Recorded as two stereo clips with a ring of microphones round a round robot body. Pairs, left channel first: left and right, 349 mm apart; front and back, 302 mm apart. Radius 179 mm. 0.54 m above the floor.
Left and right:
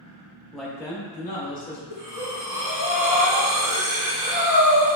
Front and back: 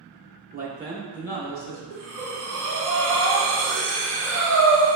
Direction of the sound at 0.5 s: 175° right.